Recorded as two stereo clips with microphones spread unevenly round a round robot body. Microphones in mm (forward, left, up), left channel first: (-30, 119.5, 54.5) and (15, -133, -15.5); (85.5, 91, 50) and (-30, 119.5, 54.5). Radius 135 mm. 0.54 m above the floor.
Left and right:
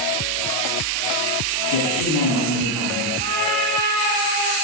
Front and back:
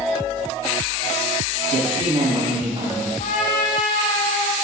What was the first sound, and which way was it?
A man speaking, 125° left.